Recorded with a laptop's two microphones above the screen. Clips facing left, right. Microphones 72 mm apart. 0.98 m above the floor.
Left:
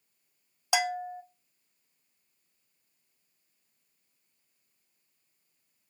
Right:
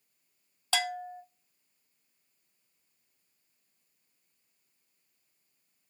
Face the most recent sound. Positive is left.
turn(degrees=15)  # may be behind; listen again after turning